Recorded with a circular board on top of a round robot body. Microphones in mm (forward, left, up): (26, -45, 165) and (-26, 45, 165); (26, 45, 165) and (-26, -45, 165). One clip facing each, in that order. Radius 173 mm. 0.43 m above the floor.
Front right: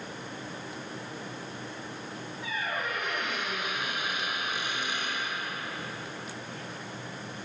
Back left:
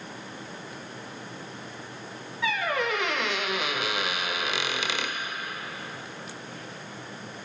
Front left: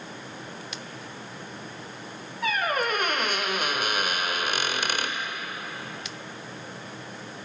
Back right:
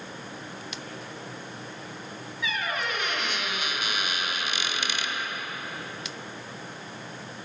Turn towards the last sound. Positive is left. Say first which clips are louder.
# back left 7 dB, front left 5 dB
turn(degrees=105)